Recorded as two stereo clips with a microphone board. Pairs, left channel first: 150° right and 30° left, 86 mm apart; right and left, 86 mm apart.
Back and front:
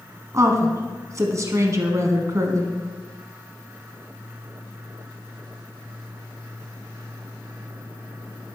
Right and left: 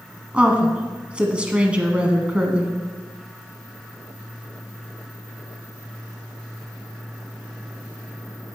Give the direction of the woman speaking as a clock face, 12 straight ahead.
11 o'clock.